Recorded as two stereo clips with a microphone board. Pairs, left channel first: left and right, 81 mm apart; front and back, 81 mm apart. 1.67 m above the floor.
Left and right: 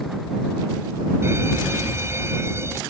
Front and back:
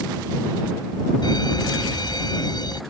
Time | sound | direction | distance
1.2 | a fire alarm | 35° right | ?